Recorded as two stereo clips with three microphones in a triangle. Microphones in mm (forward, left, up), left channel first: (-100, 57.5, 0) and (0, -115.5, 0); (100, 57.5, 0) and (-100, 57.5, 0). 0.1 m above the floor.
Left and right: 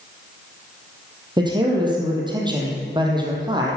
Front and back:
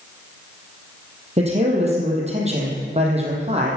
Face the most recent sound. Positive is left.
turn(degrees=-125)